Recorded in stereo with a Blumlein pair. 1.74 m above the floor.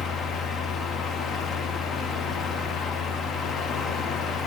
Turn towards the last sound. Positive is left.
turn(degrees=25)